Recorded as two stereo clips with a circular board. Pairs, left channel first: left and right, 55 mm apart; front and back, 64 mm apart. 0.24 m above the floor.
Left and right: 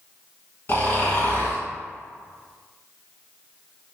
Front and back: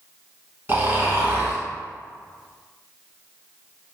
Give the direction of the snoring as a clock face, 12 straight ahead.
8 o'clock.